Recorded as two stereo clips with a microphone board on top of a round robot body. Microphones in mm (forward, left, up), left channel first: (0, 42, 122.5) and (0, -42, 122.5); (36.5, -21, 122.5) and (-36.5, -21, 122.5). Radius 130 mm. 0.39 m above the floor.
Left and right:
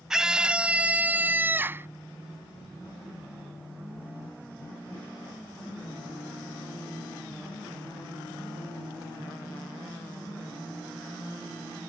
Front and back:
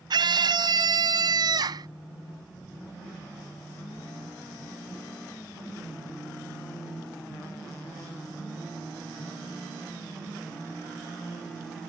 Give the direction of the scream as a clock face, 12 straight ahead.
6 o'clock.